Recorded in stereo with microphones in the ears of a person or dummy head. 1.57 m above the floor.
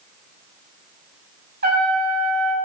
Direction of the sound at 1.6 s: 50° right (ahead or behind).